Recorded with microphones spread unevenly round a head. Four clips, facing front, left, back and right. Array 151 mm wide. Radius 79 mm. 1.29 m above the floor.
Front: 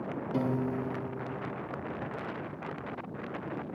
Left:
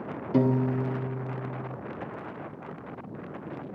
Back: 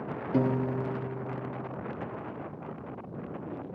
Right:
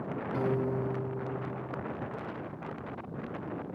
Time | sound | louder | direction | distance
0.3 | a piano | left 7 dB, back 4 dB | 110° left | 1.8 m